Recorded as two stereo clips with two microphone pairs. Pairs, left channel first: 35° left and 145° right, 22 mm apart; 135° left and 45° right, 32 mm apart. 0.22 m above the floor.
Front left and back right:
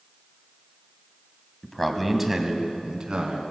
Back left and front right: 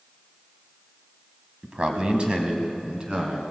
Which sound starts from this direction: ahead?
A man speaking, at 1.6 s.